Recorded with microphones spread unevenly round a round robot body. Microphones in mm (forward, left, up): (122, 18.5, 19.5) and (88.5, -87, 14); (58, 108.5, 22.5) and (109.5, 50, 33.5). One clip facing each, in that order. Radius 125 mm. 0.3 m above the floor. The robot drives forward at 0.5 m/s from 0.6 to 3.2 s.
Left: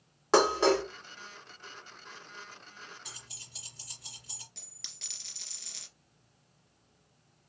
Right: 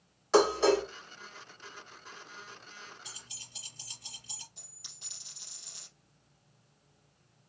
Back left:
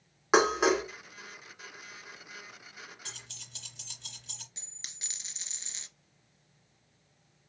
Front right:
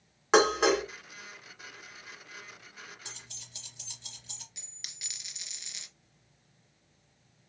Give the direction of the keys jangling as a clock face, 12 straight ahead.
7 o'clock.